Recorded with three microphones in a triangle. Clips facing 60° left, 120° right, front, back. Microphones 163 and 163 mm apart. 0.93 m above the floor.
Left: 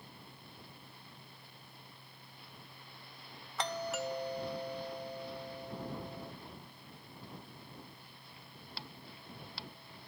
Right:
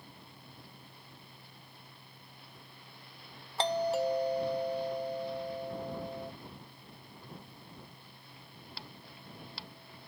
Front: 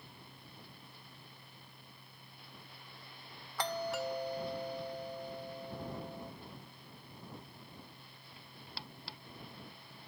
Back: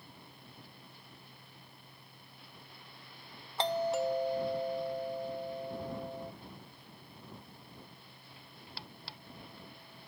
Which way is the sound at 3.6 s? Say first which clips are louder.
Right 8 dB, back 6 dB; 145° right.